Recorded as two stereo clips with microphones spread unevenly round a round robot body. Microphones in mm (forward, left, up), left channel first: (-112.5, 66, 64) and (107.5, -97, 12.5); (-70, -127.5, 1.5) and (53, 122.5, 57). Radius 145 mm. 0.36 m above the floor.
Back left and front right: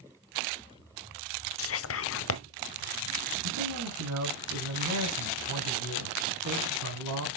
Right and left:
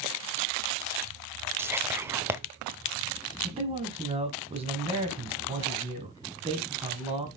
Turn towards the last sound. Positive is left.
turn(degrees=-10)